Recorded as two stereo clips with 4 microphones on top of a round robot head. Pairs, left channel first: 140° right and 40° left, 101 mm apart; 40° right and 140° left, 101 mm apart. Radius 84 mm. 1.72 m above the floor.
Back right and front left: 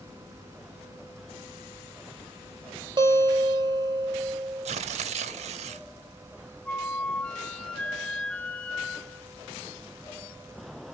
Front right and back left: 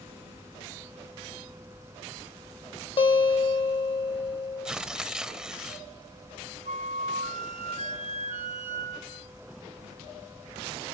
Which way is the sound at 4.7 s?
55° left.